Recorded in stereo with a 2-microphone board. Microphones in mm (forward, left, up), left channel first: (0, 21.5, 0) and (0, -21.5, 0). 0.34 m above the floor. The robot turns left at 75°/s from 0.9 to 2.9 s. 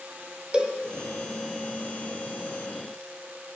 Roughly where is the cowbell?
Right.